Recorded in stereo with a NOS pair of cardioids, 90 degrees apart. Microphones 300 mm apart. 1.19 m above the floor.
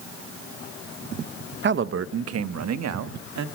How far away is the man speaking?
About 0.9 m.